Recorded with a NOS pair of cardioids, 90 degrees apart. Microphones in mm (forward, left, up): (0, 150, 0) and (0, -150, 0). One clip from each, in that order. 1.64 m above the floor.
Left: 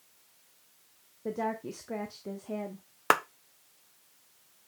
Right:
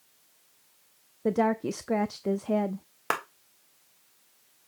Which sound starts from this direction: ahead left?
A clap, at 3.1 s.